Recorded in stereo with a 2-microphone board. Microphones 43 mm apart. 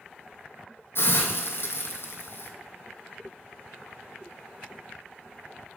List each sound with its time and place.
0.9 s a hiss: 60° left (ahead or behind), 1.3 m